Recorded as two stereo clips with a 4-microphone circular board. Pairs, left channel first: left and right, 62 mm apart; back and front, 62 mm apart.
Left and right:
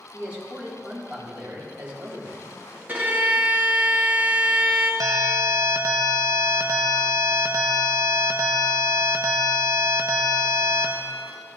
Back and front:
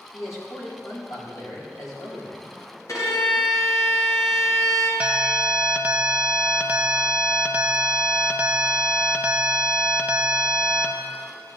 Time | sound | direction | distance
0.1 | a man speaking | 160° right | 3.5 m
2.9 | a violin | 155° right | 2 m
5.0 | an alarm | 70° right | 0.8 m